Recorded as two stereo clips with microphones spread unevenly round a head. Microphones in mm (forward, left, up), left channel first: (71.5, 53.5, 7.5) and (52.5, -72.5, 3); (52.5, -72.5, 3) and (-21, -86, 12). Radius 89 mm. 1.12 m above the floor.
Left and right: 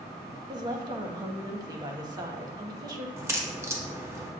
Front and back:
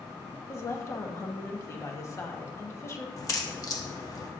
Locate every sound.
0.5 s a woman speaking: 40° right, 1.5 m
3.2 s a crack: 30° right, 1.4 m